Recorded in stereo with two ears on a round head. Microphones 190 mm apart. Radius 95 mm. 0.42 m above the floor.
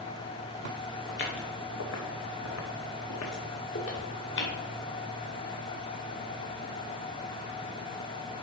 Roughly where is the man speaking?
I don't hear a man speaking.